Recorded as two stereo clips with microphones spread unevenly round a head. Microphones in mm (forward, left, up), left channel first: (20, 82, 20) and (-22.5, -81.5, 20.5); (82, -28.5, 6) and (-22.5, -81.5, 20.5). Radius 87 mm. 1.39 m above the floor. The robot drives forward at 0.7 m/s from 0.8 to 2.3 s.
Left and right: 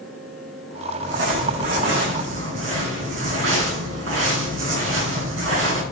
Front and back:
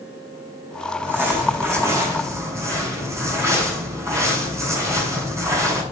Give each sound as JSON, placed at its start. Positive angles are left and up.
{"t": 1.0, "sound": "crumpling", "azimuth_deg": -80, "distance_m": 6.5}